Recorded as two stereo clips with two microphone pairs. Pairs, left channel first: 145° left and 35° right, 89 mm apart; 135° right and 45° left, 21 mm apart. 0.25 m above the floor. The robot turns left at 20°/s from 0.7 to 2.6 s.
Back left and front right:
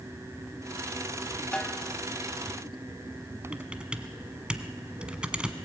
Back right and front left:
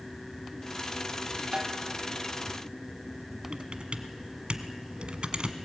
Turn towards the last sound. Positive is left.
turn(degrees=45)